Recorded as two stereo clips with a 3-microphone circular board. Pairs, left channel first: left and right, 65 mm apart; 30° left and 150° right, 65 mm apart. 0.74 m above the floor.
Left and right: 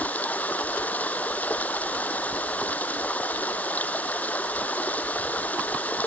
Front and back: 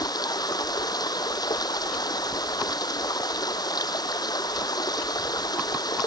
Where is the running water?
25° left.